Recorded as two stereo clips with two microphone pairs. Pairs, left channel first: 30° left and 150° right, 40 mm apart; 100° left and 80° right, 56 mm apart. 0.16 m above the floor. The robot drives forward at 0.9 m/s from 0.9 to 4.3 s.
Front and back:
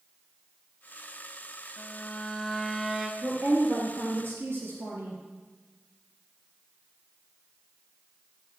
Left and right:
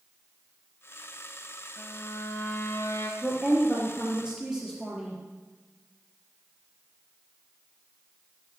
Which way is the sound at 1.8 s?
70° left.